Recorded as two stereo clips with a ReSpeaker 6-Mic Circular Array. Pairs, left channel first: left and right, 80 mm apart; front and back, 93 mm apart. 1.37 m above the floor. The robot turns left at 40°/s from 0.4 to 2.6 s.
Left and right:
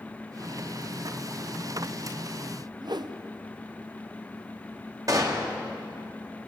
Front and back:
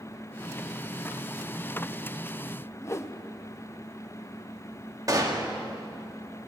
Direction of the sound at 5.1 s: 130° right.